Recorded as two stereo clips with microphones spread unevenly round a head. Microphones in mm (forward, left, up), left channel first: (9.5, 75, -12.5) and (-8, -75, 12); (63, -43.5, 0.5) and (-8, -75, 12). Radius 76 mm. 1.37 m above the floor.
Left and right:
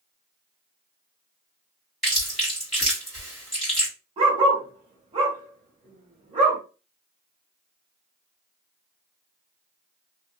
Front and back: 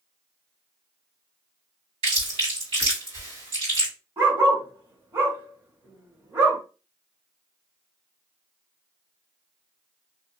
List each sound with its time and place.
2.0 s chewing: 175° left, 1.9 m
4.2 s a dog barking: 125° right, 1.4 m